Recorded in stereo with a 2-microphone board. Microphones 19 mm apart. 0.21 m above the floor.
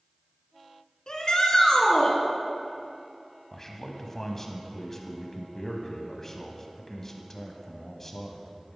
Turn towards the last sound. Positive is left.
turn(degrees=20)  # may be behind; listen again after turning